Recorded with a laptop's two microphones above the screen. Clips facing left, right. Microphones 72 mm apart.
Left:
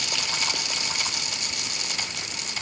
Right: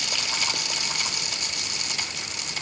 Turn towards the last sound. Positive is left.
No sound to turn to.